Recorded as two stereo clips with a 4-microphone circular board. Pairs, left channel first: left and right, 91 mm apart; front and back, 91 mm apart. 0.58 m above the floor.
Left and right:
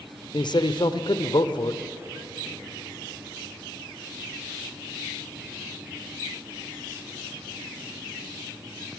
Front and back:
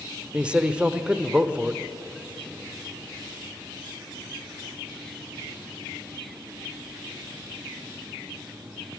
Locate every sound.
0.3 s a man speaking: 105° left, 1.6 m